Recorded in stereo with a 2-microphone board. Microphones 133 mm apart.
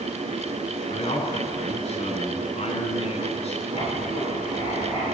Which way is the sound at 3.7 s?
45° left (ahead or behind).